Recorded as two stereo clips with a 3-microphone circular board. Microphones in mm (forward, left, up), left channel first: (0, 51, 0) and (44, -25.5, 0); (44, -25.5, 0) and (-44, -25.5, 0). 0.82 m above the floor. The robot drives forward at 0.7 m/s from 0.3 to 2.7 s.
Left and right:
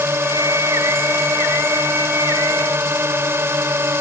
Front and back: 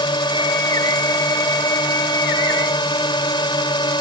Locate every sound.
0.0 s a drone: straight ahead